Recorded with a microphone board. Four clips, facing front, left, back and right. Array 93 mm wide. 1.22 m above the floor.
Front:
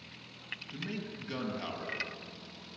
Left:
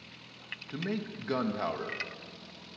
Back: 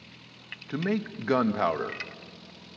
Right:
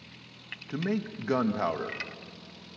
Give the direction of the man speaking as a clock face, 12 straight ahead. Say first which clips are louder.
Right 4 dB, back 12 dB; 5 o'clock.